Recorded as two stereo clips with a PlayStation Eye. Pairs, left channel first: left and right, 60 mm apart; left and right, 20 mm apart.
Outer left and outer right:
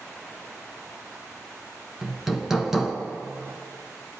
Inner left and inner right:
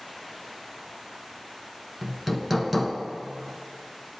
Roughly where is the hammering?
Centre.